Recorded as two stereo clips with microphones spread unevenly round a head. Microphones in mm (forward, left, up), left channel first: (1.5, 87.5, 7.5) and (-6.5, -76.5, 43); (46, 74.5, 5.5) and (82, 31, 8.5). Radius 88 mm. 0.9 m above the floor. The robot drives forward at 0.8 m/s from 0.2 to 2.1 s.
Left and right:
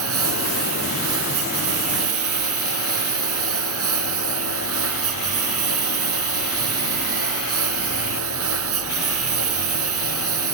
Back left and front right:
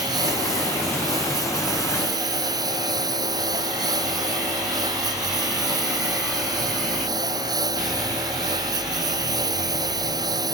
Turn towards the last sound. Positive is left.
turn(degrees=-90)